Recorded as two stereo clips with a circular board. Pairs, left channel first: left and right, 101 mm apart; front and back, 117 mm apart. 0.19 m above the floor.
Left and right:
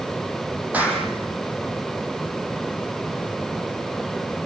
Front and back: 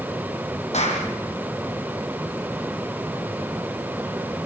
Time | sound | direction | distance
0.7 | a clap | 15° right | 6.5 m